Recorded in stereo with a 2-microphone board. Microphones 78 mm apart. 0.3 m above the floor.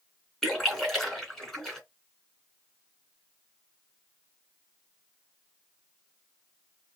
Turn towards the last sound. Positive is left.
turn(degrees=5)  # may be behind; listen again after turning